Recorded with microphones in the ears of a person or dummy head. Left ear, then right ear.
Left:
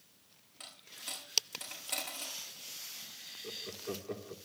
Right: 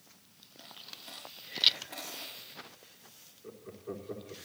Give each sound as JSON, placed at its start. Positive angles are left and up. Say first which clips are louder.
{"t": 0.6, "sound": "a dropped coin", "louder": "left 1 dB", "side_deg": 45, "distance_m": 6.0}
{"t": 3.4, "sound": "laughter", "louder": "left 2 dB", "side_deg": 75, "distance_m": 3.0}